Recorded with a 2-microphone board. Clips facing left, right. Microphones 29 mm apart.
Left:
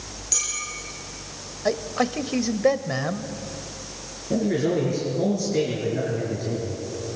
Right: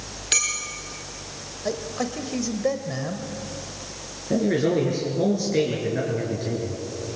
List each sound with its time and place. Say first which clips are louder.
0.3 s a clink: right 6 dB; 75° right (ahead or behind), 3.5 m
1.6 s a man speaking: left 4 dB; 35° left (ahead or behind), 1.1 m
4.3 s a man speaking: right 1 dB; 25° right (ahead or behind), 4 m